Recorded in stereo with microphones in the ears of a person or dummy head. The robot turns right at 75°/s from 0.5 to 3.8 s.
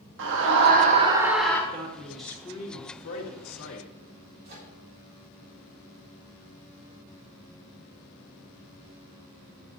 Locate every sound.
0.2 s a scream: 70° right, 2 m; by 1.6 s 15° left, 2 m
1.7 s a man speaking: 35° right, 1.8 m; by 3.9 s 120° left, 1.8 m
4.5 s a microwave: 55° right (ahead or behind), 3.5 m